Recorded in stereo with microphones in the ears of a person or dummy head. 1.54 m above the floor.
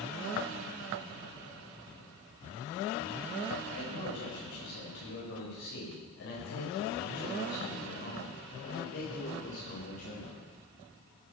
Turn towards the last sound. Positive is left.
turn(degrees=45)  # may be behind; listen again after turning